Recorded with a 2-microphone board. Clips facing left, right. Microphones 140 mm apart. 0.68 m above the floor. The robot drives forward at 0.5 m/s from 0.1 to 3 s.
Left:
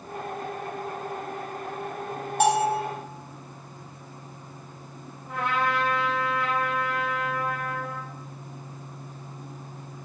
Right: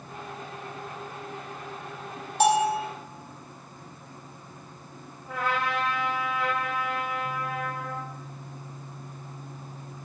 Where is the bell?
50° left (ahead or behind), 2.5 m; by 2.8 s 55° left (ahead or behind), 2.5 m.